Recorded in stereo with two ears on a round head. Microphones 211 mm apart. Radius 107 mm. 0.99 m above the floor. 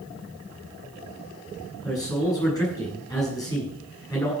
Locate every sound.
1.8 s a man speaking: 15° left (ahead or behind), 8.5 m